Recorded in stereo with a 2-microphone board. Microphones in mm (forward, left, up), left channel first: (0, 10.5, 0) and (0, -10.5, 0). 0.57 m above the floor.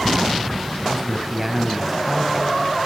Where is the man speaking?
15° right (ahead or behind), 3.5 m.